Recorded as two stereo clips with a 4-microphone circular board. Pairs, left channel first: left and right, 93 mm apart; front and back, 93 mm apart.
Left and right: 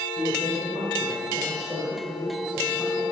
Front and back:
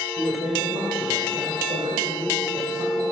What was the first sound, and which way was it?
A man speaking, 165° right.